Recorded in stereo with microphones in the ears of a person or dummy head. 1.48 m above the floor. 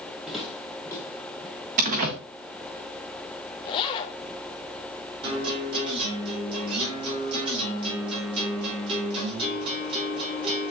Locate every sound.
0.3 s footsteps: centre (ahead or behind), 2.5 m; by 1.6 s 30° left (ahead or behind), 2.5 m
1.8 s a door slam: 40° right (ahead or behind), 0.8 m
3.6 s a zipper: 30° left (ahead or behind), 0.6 m
5.2 s a guitar: 25° right (ahead or behind), 4.5 m